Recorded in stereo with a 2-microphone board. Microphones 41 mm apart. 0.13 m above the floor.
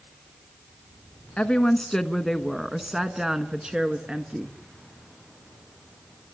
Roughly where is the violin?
I don't hear a violin.